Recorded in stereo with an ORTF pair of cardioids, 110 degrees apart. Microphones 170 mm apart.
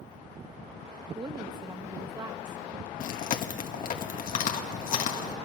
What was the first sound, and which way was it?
A woman speaking, 25° right.